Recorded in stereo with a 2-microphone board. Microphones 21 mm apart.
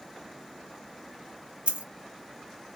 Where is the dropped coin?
65° right (ahead or behind), 0.7 m.